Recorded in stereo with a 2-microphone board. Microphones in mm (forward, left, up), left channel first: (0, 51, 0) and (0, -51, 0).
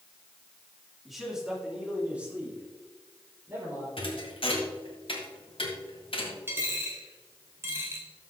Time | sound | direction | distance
1.1 | a man speaking | centre (ahead or behind) | 3 m
4.0 | a thud | 60° left (ahead or behind) | 2 m
6.5 | a dropped coin | 25° right (ahead or behind) | 1.9 m